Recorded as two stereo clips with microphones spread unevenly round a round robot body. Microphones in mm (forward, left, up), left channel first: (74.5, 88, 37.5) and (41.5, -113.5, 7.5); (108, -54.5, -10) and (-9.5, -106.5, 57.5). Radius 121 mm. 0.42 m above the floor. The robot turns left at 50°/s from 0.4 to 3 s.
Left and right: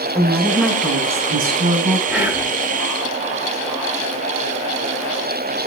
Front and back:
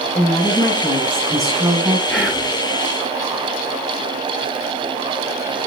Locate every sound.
0.1 s a woman speaking: 5° right, 3 m; by 2.0 s 85° right, 3 m
2.1 s whispering: 25° right, 1.6 m; by 2.5 s 45° right, 1.6 m